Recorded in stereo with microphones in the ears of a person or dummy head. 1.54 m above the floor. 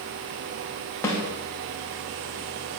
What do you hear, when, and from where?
1.0 s a snare drum: 20° left (ahead or behind), 3 m